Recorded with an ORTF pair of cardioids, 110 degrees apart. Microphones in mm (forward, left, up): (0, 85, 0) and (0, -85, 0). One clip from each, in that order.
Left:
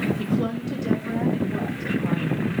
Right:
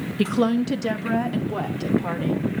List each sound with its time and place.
0.2 s a woman speaking: 60° right, 1.2 m; by 2.5 s 55° right, 4 m